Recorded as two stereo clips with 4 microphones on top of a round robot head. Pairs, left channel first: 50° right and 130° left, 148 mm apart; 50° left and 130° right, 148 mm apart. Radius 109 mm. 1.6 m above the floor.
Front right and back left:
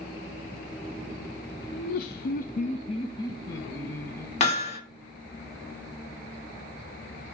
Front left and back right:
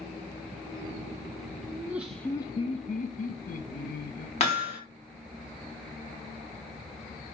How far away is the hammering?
About 2.5 m.